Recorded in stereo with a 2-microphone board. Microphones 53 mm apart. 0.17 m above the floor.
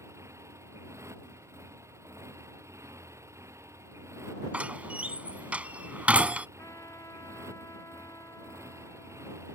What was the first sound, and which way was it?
A motorcycle, 65° right (ahead or behind).